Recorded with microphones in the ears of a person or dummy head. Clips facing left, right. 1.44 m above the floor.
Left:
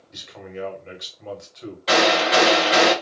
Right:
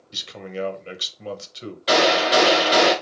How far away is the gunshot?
About 1.0 m.